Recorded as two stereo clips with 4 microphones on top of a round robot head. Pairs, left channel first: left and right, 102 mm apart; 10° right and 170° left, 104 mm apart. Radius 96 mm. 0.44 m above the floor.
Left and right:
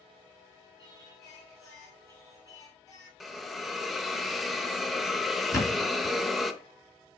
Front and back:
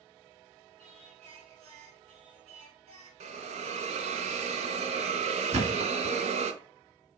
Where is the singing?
145° left, 1.6 m.